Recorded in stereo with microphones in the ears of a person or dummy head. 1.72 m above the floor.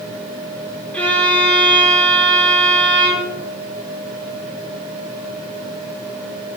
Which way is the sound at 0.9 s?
10° left (ahead or behind).